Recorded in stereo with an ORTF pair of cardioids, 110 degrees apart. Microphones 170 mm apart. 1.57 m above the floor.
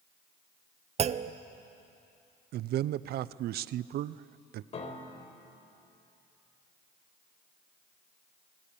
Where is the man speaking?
65° right, 0.6 m.